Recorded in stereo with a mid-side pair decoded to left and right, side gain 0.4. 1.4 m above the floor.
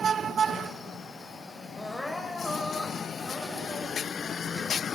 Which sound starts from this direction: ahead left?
Crying, at 1.8 s.